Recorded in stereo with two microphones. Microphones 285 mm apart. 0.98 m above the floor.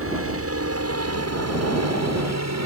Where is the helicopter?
50° right (ahead or behind); by 2.7 s 65° right (ahead or behind).